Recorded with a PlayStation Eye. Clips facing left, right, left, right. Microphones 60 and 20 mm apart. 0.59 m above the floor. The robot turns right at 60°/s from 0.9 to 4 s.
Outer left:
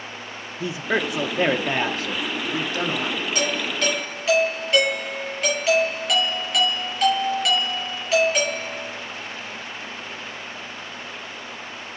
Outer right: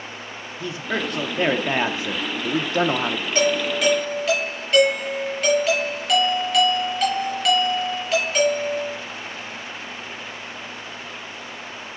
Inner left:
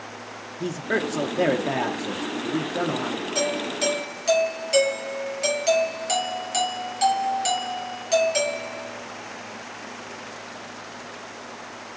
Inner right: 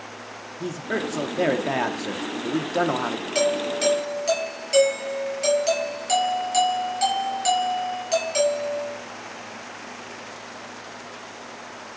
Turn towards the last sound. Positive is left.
turn(degrees=5)